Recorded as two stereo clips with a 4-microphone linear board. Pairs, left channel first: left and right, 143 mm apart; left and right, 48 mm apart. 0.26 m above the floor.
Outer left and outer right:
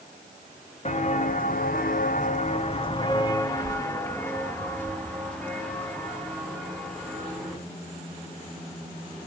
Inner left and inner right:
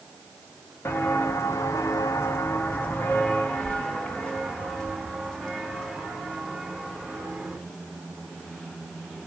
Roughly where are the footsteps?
Left.